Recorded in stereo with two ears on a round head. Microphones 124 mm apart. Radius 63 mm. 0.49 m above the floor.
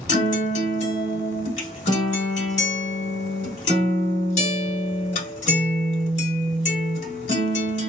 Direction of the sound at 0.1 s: 55° left (ahead or behind).